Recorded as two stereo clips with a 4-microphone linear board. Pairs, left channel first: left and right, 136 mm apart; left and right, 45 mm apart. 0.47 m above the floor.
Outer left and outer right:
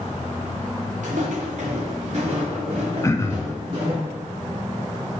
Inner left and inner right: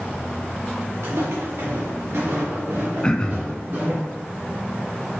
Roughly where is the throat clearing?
Left.